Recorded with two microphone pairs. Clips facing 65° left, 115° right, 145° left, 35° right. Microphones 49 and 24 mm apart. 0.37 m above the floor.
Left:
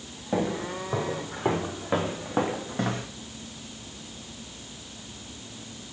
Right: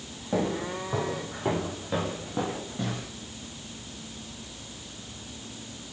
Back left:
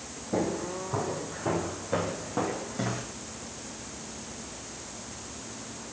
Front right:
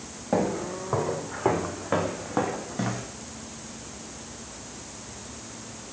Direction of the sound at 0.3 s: 15° right.